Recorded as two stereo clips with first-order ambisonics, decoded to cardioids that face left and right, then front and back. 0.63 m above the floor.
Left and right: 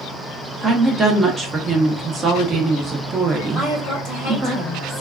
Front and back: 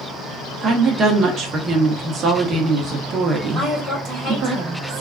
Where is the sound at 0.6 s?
145° right, 0.7 m.